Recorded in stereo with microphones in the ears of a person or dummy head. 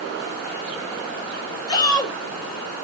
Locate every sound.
1.7 s a shout: 15° left (ahead or behind), 3 m